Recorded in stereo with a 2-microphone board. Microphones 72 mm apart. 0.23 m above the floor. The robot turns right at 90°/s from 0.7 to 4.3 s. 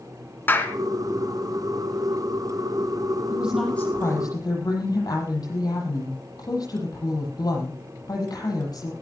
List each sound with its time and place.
0.5 s a clap: 30° left (ahead or behind), 2 m; by 0.8 s 35° left (ahead or behind), 2 m
3.3 s a woman speaking: 25° right, 9.5 m; by 8.9 s 65° left, 9.5 m